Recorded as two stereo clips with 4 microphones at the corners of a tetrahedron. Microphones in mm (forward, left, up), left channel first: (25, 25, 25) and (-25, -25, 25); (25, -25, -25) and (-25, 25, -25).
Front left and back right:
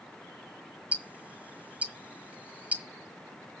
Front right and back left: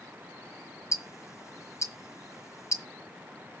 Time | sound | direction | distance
0.9 | ticking | 70° right | 1.5 m